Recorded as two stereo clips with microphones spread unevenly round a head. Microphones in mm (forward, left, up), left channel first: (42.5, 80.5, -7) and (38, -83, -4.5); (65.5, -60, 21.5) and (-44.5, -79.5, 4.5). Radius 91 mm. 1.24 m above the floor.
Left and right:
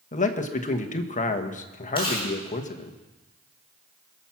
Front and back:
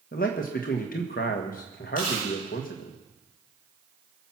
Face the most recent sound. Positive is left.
turn(degrees=25)